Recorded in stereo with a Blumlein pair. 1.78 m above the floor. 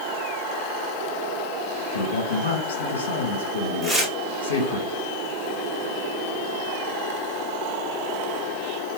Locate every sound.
1.9 s a man speaking: 65° left, 1.4 m
3.8 s tearing paper: 5° right, 1.3 m